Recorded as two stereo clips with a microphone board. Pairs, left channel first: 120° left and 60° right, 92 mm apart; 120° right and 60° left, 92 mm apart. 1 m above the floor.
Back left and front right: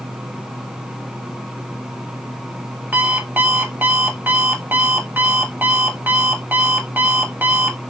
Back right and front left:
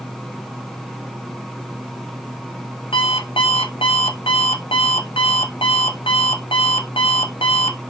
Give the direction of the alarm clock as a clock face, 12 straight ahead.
4 o'clock.